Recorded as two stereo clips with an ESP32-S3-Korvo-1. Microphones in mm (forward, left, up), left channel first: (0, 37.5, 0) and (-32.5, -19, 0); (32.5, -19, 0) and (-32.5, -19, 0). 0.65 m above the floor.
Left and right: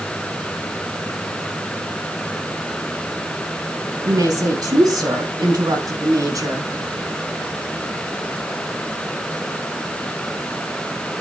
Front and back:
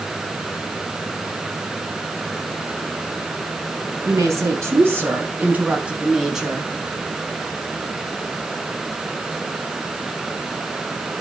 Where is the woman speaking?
140° right, 4.5 m; by 6.7 s 90° right, 5 m.